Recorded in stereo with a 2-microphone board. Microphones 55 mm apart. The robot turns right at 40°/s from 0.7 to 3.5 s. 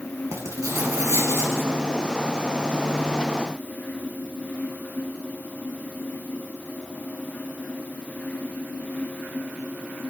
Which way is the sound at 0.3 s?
95° right.